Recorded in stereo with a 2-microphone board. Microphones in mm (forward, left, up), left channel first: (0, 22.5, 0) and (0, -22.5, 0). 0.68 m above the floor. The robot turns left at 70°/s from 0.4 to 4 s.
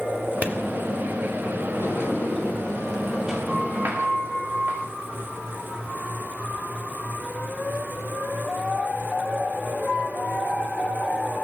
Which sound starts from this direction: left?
A sliding door, at 1.8 s.